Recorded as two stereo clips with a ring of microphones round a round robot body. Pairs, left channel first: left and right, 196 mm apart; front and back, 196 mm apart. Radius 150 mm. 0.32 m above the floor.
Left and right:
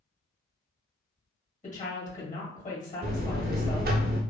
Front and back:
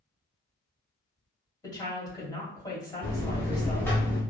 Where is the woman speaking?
65° left, 1.8 m.